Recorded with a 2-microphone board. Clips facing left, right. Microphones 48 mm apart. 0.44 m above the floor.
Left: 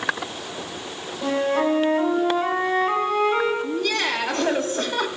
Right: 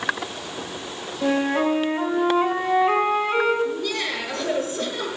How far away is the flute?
About 3 m.